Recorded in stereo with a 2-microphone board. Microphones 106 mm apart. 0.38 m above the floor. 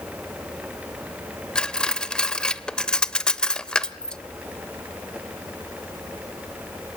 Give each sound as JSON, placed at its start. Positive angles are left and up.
{"t": 1.6, "sound": "cutlery clinking", "side_deg": 10, "distance_m": 0.6}